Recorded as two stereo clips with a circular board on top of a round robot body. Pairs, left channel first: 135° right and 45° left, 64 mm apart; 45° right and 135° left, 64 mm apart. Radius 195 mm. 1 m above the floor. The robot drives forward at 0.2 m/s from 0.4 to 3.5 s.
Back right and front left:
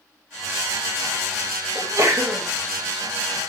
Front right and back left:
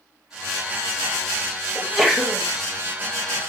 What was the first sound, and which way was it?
A sneeze, 45° left.